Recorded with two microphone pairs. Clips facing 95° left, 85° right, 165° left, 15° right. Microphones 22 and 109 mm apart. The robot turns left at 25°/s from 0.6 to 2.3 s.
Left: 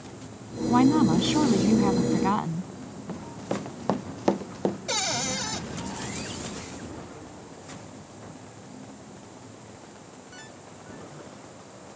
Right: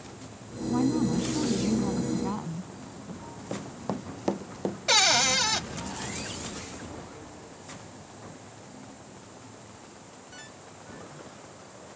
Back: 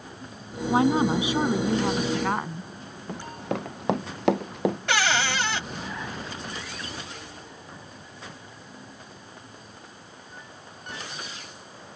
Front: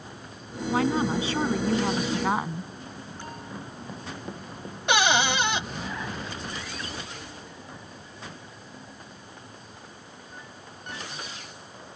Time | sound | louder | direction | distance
0.7 | a woman speaking | left 6 dB, back 3 dB | 105° left | ?
3.1 | running footsteps | left 6 dB, back 11 dB | 150° left | ?
4.9 | a cupboard door | right 11 dB, front 8 dB | 70° right | ?